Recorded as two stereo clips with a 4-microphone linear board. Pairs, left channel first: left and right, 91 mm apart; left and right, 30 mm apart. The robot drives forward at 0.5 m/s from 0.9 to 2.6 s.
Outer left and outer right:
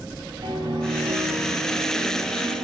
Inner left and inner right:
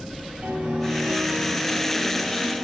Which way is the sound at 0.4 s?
60° right (ahead or behind).